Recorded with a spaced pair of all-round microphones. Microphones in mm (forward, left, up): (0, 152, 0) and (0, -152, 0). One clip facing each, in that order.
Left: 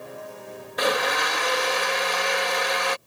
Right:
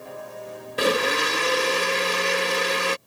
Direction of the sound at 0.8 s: 35° right (ahead or behind).